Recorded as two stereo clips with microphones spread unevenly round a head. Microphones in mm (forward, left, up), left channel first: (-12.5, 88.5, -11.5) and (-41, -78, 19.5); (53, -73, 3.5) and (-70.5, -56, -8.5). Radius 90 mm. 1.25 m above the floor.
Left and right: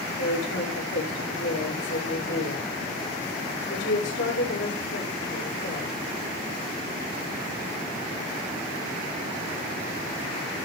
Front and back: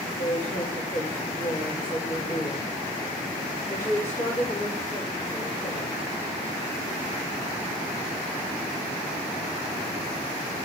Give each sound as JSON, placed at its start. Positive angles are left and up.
{"t": 0.2, "sound": "a woman speaking", "azimuth_deg": 75, "distance_m": 4.5}